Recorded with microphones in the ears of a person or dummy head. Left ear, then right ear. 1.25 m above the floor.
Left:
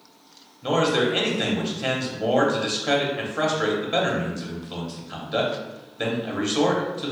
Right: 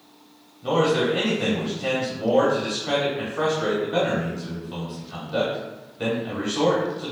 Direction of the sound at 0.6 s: 50° left (ahead or behind).